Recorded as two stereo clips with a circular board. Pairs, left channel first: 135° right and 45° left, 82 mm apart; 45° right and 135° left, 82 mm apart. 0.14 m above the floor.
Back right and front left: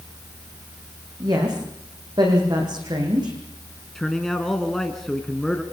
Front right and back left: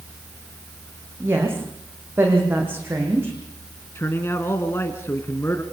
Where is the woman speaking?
75° left, 8.5 m; by 3.3 s 70° left, 10 m.